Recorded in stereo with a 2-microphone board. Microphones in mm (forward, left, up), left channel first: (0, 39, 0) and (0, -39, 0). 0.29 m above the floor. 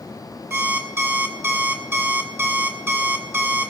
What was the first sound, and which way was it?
An alarm clock, 30° right (ahead or behind).